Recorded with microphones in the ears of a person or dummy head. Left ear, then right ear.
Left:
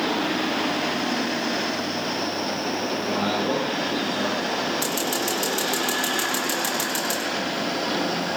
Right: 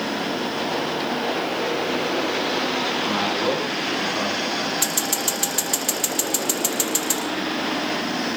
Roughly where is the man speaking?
Right.